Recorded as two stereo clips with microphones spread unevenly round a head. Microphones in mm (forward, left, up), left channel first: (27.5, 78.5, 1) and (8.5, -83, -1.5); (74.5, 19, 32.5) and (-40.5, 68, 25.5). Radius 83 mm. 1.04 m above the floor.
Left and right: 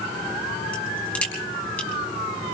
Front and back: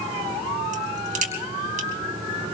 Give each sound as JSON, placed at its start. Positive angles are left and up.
{"t": 0.7, "sound": "a crack", "azimuth_deg": 165, "distance_m": 3.5}